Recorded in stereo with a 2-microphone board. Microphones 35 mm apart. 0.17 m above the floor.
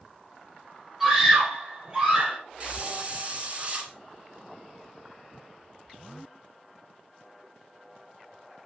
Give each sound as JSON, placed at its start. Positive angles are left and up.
{"t": 1.0, "sound": "a scream", "side_deg": -15, "distance_m": 5.0}
{"t": 2.6, "sound": "a hiss", "side_deg": -35, "distance_m": 2.0}